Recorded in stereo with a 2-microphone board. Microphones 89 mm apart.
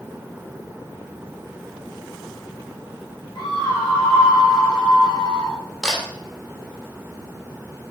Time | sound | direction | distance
3.4 | a scream | 50° left (ahead or behind) | 6 m
5.8 | a camera shutter | 5° left (ahead or behind) | 3.5 m